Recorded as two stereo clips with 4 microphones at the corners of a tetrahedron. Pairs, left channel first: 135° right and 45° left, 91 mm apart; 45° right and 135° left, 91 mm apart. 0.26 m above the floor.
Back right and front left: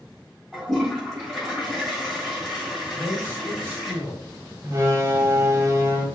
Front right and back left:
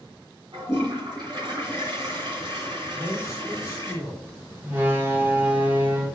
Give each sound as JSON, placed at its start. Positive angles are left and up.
{"t": 0.5, "sound": "a toilet flushing", "azimuth_deg": 135, "distance_m": 2.5}
{"t": 2.9, "sound": "a man speaking", "azimuth_deg": -10, "distance_m": 1.6}
{"t": 4.6, "sound": "a door slam", "azimuth_deg": 80, "distance_m": 1.2}